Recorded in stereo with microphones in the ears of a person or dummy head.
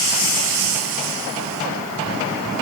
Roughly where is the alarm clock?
No alarm clock in this recording.